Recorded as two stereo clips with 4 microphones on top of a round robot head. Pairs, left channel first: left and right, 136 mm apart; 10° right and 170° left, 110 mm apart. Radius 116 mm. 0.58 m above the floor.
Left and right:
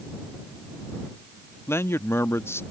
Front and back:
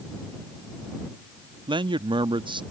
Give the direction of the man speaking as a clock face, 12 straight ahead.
7 o'clock.